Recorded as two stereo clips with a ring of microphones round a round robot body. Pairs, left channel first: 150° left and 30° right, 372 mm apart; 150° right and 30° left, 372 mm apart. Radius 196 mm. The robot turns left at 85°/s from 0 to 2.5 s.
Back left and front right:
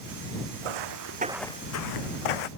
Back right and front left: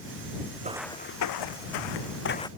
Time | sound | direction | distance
0.6 | footsteps | 40° right | ?